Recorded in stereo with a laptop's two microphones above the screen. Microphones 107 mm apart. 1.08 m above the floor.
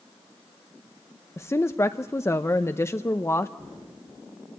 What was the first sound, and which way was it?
A woman speaking, 25° left (ahead or behind).